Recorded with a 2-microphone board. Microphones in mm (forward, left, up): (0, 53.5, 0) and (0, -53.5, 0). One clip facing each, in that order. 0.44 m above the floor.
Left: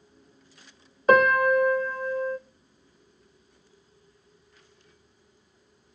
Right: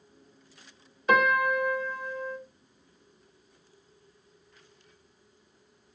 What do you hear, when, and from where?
1.1 s a piano: 45° left (ahead or behind), 1.4 m